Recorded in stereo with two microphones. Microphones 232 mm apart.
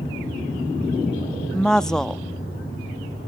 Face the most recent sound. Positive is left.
turn(degrees=5)  # may be behind; listen again after turning